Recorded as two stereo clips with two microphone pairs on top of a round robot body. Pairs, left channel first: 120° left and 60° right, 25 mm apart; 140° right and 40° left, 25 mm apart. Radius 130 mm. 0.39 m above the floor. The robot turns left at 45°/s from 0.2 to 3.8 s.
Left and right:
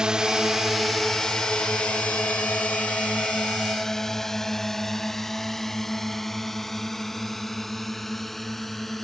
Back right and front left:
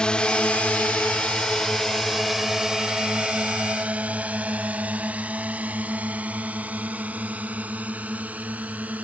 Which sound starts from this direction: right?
A drone, at 0.0 s.